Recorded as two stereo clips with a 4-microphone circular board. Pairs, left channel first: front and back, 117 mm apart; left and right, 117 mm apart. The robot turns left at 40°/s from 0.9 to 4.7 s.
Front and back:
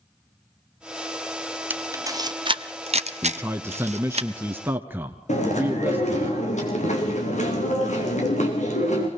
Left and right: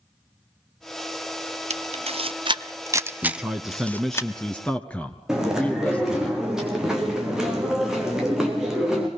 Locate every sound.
1.7 s a camera shutter: 105° right, 0.7 m; by 4.2 s 155° left, 0.7 m
3.2 s a man speaking: 155° right, 1.1 m; by 6.3 s 145° left, 1.1 m
5.3 s chewing: 5° right, 3.5 m